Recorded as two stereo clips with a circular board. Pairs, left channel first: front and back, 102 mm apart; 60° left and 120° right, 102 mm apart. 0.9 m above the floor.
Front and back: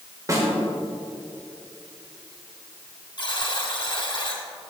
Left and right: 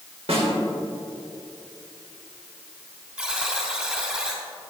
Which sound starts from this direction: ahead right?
A buzzer, at 3.2 s.